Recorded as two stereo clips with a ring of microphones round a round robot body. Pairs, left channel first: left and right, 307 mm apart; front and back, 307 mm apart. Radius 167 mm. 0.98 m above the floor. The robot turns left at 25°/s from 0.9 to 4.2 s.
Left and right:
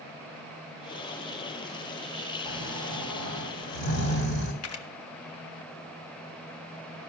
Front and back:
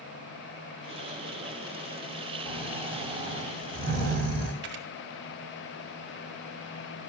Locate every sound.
2.4 s snoring: 120° left, 5 m; by 4.5 s 75° left, 5 m
4.6 s a camera shutter: 125° left, 1.2 m